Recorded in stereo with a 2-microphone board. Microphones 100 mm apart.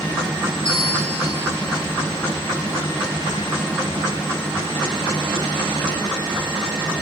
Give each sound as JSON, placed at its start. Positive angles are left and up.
{"t": 0.7, "sound": "a bell", "side_deg": 60, "distance_m": 5.0}